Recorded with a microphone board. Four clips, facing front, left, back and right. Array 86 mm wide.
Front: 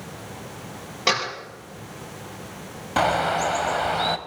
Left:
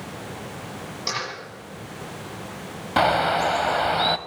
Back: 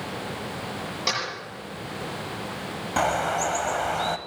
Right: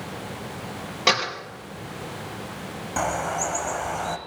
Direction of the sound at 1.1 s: 60° right.